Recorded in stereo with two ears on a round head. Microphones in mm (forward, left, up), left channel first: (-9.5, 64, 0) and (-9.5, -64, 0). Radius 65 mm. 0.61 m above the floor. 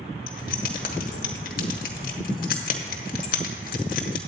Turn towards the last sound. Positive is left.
turn(degrees=65)  # may be behind; listen again after turning